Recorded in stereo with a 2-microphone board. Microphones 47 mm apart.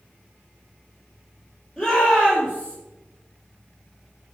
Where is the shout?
20° left (ahead or behind), 4 m; by 2.8 s 25° left (ahead or behind), 3.5 m.